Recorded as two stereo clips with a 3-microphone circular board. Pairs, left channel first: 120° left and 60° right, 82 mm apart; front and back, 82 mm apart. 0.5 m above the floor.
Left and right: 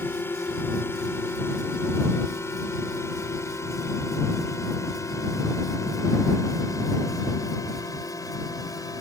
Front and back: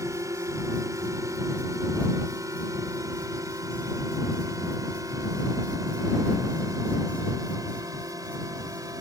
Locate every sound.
0.0 s a drone: 165° left; by 9.0 s 150° left